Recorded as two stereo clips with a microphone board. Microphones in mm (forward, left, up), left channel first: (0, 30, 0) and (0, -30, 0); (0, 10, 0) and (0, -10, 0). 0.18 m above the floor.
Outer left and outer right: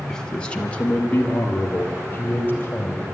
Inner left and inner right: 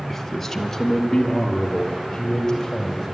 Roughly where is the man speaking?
Centre.